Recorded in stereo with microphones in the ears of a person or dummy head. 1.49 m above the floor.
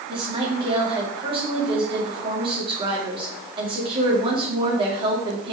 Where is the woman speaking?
25° right (ahead or behind), 2.5 m.